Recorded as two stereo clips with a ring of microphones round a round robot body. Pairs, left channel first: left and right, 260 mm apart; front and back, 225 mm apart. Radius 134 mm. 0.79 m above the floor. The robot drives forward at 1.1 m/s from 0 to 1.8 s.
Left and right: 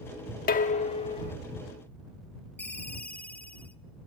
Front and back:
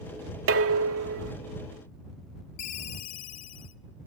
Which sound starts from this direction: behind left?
Dishes clattering, at 0.5 s.